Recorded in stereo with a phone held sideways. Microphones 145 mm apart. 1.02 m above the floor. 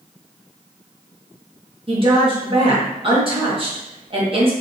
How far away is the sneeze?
I don't hear a sneeze.